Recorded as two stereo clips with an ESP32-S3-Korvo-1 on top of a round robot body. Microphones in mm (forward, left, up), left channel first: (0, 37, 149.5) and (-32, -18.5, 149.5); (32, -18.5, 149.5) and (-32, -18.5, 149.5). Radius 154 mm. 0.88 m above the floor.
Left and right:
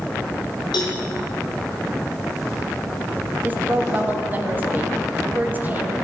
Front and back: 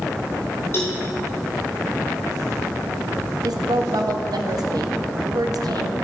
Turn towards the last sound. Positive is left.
turn(degrees=180)